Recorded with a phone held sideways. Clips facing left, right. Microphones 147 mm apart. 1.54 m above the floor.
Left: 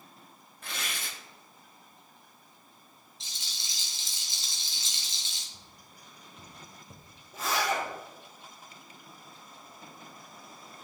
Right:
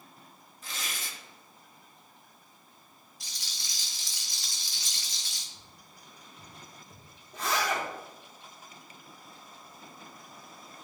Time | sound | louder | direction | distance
0.6 | tearing paper | left 2 dB | 65° left (ahead or behind) | 1.0 m
3.2 | a rattle | even | 25° left (ahead or behind) | 1.2 m
5.5 | tapping | even | 60° left (ahead or behind) | 1.4 m
7.3 | a zipper | even | 5° left (ahead or behind) | 2.5 m